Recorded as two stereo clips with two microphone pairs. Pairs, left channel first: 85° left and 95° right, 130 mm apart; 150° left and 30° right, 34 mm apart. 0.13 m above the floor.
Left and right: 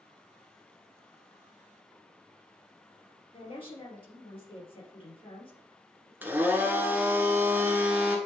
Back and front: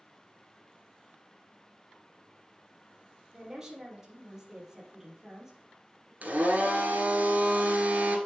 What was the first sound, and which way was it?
A woman speaking, 45° left.